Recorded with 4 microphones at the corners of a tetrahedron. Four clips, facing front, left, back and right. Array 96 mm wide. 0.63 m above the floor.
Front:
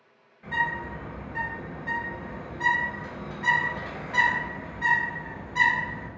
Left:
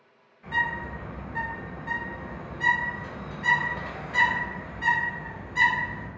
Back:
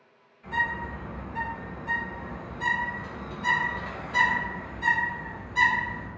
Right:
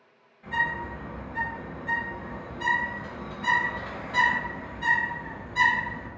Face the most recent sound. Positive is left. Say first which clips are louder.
# even, front 1 dB
turn(degrees=-15)